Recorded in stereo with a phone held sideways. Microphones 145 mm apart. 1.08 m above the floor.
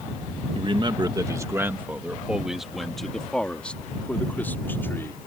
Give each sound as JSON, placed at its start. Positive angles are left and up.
{"t": 0.6, "sound": "a man speaking", "side_deg": -40}